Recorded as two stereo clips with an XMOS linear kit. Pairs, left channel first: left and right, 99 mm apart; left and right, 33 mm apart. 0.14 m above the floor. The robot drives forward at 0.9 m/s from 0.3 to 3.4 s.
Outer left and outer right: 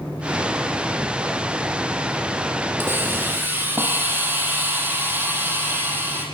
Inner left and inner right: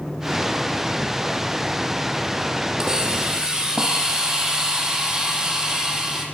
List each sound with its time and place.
2.8 s a hiss: 25° right (ahead or behind), 6 m; by 6.2 s 20° right (ahead or behind), 6.5 m